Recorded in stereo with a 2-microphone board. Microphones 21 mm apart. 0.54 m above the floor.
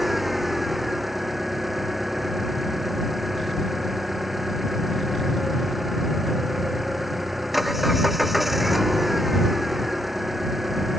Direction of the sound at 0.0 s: 10° right (ahead or behind).